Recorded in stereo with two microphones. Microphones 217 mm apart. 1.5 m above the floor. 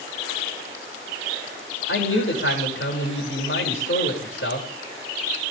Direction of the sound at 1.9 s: 65° left (ahead or behind).